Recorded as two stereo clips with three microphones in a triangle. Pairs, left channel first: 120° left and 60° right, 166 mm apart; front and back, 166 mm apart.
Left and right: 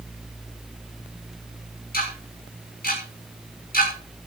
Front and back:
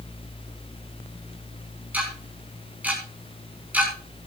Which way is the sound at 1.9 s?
100° left.